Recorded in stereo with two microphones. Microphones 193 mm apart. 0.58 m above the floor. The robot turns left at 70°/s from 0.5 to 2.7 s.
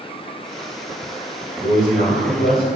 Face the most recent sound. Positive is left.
turn(degrees=60)